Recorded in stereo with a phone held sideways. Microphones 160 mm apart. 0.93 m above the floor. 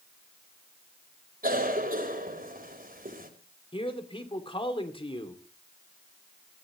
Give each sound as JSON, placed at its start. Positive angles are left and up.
{"t": 1.4, "sound": "a cough", "side_deg": -60, "distance_m": 3.5}
{"t": 3.7, "sound": "a man speaking", "side_deg": 35, "distance_m": 2.5}